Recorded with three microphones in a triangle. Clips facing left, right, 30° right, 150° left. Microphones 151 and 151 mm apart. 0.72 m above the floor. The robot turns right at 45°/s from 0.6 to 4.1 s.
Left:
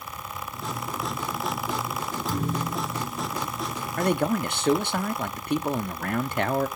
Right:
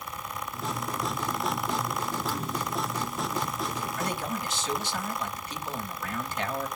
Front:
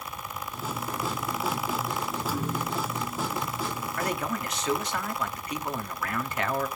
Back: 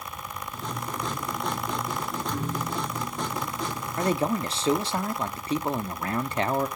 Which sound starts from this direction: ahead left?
A thud, at 2.3 s.